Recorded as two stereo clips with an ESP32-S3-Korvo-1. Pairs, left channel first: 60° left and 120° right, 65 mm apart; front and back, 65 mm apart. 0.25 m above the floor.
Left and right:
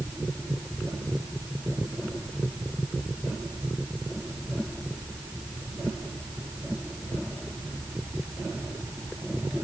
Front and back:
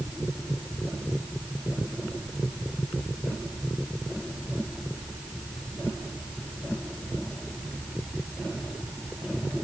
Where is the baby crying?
No baby crying in this recording.